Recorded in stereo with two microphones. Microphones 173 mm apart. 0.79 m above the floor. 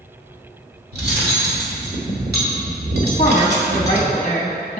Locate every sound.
0.9 s cutlery clinking: 80° right, 1.4 m
3.0 s a woman speaking: 40° left (ahead or behind), 0.8 m